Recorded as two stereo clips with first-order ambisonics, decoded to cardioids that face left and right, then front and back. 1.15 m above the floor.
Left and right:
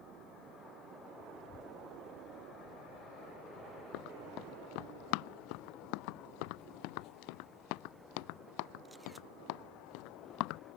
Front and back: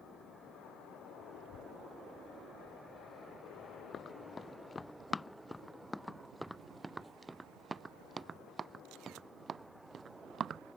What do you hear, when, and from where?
1.3 s a child speaking: 35° left; by 4.9 s 50° left
3.9 s running footsteps: 65° left; by 10.6 s 115° left